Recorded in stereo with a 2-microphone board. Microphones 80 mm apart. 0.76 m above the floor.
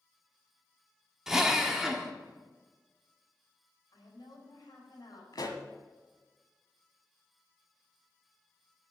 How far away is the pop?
About 1.3 m.